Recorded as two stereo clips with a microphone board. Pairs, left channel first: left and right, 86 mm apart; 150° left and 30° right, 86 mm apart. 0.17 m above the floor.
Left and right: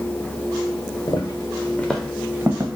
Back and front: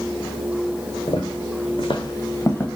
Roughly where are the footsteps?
Behind left.